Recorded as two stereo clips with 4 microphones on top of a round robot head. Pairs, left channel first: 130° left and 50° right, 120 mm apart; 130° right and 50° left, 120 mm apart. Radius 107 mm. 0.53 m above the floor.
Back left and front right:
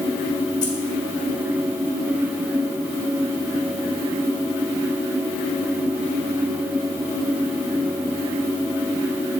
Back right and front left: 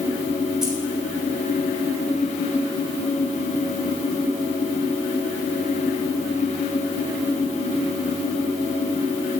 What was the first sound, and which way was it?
Keys jangling, 135° left.